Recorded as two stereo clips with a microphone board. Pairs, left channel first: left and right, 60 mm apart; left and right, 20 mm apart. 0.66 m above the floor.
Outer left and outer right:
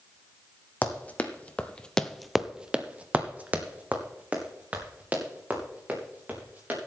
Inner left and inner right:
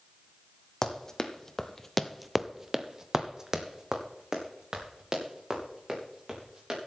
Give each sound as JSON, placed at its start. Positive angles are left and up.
{"t": 0.8, "sound": "running footsteps", "side_deg": 25, "distance_m": 1.5}